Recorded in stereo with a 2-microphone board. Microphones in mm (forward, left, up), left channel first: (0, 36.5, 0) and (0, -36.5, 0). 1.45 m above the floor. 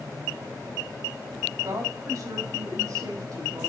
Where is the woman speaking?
60° right (ahead or behind), 3.5 m.